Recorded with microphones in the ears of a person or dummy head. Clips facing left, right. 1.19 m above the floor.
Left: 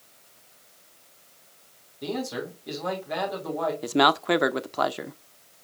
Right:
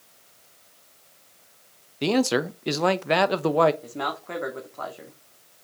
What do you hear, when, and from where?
2.0 s a man speaking: 80° right, 0.8 m
3.8 s a man speaking: 85° left, 0.7 m